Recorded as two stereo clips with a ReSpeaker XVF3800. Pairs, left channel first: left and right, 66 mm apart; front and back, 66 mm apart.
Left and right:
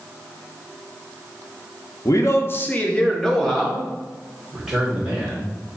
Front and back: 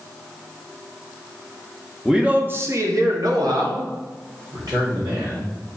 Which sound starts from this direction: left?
A man speaking, at 2.0 s.